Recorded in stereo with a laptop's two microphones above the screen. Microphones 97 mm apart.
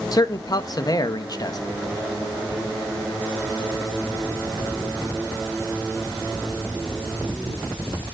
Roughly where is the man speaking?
Left.